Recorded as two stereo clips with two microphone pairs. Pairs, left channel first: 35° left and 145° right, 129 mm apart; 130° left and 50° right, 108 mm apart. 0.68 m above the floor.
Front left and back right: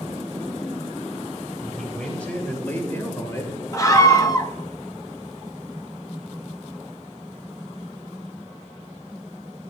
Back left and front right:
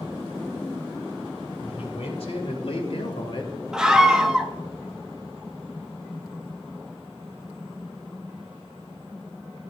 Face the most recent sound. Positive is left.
turn(degrees=25)